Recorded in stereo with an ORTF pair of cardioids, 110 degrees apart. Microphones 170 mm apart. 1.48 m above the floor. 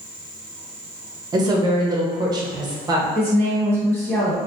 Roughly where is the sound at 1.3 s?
Ahead right.